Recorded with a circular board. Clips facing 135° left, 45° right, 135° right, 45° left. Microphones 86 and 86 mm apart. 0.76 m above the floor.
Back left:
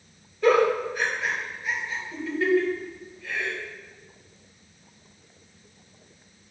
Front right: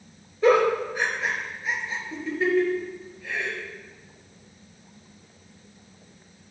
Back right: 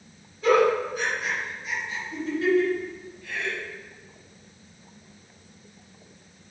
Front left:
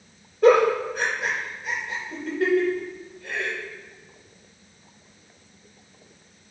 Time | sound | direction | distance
0.4 | a giggle | 20° left | 4 m